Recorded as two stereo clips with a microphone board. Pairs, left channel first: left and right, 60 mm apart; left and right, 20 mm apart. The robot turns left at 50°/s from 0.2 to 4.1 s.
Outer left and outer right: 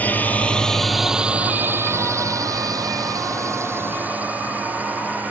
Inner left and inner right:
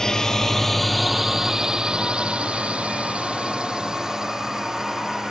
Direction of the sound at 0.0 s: 25° left (ahead or behind).